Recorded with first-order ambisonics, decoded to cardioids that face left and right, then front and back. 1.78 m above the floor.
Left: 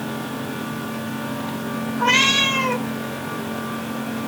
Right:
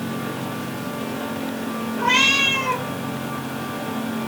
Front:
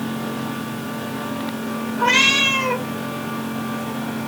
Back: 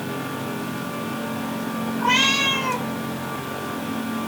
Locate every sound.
2.0 s a cat meowing: 50° left, 2.5 m